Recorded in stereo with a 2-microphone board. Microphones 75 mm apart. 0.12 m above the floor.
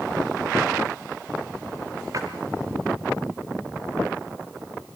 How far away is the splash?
About 3.5 m.